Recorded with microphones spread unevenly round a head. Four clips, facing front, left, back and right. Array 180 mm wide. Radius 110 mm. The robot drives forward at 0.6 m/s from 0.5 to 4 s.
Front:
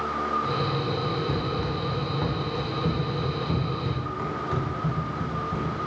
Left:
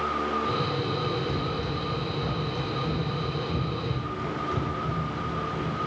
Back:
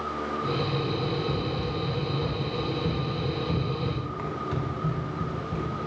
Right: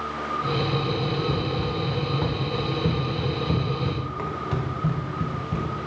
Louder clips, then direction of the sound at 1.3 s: Right 3 dB, front 1 dB; 25° right.